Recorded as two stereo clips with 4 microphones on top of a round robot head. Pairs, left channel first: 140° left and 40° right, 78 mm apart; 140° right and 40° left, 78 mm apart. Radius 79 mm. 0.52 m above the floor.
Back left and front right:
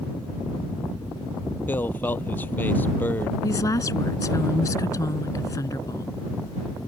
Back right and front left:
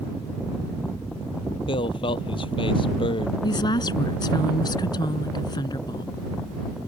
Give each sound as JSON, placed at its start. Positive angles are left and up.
{"t": 1.7, "sound": "a man speaking", "azimuth_deg": -155}
{"t": 3.4, "sound": "a woman speaking", "azimuth_deg": -170}